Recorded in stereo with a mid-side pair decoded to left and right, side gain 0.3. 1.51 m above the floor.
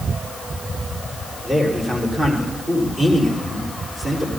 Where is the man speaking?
25° right, 6 m.